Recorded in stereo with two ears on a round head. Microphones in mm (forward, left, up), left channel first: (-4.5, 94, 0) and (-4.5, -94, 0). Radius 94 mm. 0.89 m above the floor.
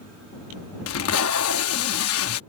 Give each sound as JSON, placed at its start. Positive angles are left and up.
{"t": 0.9, "sound": "tape being pulled", "side_deg": 80}